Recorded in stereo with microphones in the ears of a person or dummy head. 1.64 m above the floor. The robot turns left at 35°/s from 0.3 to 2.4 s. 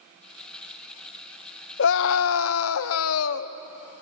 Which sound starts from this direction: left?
A scream, at 1.8 s.